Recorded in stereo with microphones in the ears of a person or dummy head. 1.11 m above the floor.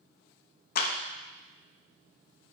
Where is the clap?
55° left (ahead or behind), 0.8 m.